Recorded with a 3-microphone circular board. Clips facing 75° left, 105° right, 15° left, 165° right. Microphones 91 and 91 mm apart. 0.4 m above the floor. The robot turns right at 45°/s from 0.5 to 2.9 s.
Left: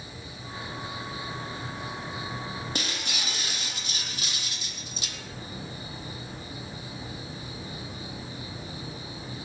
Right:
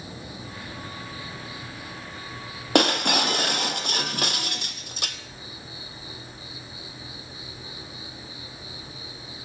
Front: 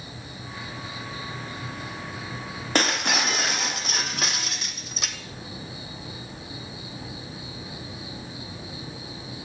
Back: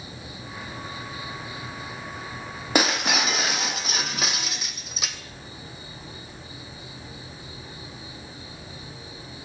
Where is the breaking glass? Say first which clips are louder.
Right 14 dB, back 1 dB; 85° right, 1.3 m; by 5.2 s 75° right, 1.3 m.